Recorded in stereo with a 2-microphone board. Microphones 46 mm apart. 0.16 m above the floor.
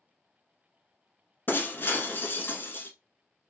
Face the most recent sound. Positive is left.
turn(degrees=50)  # may be behind; listen again after turning